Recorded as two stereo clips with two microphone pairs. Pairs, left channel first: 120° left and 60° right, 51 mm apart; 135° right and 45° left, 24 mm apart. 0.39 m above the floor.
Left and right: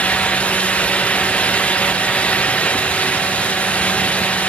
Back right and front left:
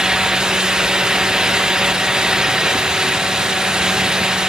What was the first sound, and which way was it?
Only background noise.